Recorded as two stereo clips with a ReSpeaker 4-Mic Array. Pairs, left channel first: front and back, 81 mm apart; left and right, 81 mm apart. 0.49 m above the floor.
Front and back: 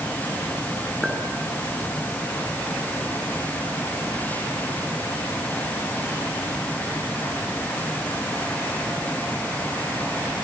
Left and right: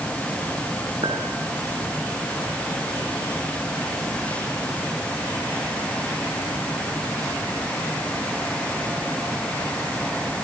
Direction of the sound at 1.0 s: 90° right.